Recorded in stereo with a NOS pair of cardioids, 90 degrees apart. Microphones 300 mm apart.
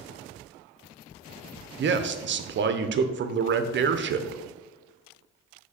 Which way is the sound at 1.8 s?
40° right.